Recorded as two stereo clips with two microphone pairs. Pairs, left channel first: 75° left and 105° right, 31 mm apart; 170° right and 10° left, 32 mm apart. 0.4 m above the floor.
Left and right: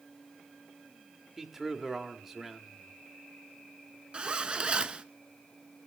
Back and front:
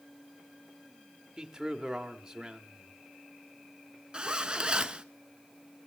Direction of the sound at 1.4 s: 45° right.